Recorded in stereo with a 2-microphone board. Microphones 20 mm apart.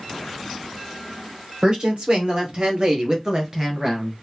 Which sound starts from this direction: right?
A woman speaking, at 1.6 s.